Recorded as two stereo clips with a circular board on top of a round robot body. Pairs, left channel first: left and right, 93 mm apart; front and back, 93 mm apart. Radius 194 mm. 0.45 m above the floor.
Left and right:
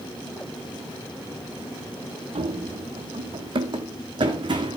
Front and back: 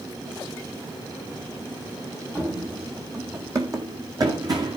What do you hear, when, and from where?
2.4 s running footsteps: 110° right, 1.2 m; by 4.8 s 130° right, 2.5 m